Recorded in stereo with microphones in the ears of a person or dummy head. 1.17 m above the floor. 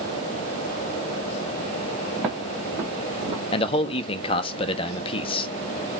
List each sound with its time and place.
2.2 s footsteps: 15° right (ahead or behind), 1.3 m; by 3.4 s 25° right (ahead or behind), 1.3 m
3.5 s a man speaking: 30° left (ahead or behind), 0.5 m